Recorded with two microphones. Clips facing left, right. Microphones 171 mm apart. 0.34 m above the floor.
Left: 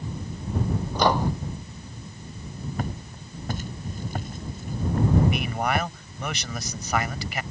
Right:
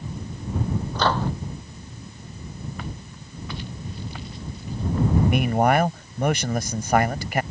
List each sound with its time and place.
0.9 s a microwave: 15° left (ahead or behind)
2.8 s footsteps: 45° left (ahead or behind); by 5.9 s 50° left (ahead or behind)
5.3 s a man speaking: 50° right (ahead or behind)